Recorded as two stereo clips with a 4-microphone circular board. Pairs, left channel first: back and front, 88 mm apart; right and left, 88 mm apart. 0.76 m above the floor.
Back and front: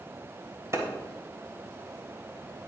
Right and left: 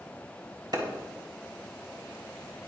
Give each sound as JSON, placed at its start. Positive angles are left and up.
{"t": 0.7, "sound": "a clap", "azimuth_deg": 55, "distance_m": 3.0}